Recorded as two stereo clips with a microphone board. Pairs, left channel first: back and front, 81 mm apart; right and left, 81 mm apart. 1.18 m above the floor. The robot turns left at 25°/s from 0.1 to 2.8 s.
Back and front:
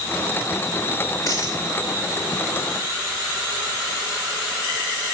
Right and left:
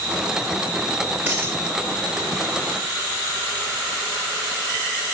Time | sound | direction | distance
1.3 | a dropped coin | 155° left | 1.8 m